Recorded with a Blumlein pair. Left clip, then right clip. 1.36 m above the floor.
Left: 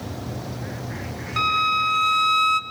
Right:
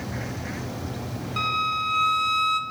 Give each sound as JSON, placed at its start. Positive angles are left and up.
{"t": 1.4, "sound": "a violin", "azimuth_deg": 10, "distance_m": 1.3}